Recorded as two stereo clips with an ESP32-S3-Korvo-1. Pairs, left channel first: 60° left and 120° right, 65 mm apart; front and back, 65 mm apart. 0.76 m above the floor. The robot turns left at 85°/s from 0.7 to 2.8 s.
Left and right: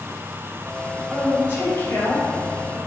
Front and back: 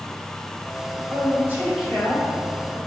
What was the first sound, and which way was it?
A woman speaking, 155° left.